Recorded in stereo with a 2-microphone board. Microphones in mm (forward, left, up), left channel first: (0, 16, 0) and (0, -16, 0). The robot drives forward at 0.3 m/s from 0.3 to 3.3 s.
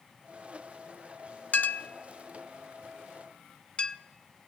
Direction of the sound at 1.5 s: 55° left (ahead or behind).